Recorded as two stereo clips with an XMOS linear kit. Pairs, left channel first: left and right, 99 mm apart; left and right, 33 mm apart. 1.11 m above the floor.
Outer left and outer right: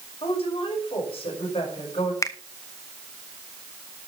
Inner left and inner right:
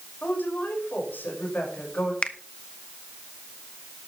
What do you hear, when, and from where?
0.2 s a woman speaking: 65° left (ahead or behind), 5.5 m
2.2 s a finger snap: 30° left (ahead or behind), 0.9 m